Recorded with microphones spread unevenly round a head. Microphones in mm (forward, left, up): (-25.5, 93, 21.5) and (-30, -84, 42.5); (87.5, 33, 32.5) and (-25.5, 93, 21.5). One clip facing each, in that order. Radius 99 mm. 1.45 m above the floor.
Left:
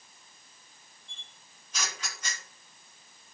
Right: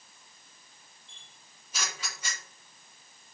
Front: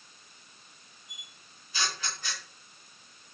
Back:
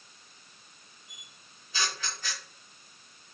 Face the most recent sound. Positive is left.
turn(degrees=-175)